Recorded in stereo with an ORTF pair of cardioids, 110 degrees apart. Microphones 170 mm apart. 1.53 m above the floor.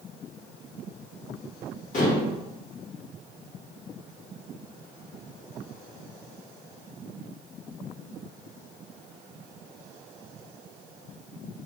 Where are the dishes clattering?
50° left, 1.6 m.